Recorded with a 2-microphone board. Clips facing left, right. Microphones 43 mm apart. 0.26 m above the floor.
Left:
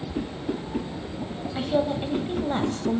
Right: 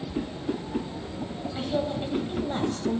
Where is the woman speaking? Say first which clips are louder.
Left 4 dB; 20° left (ahead or behind), 1.2 m.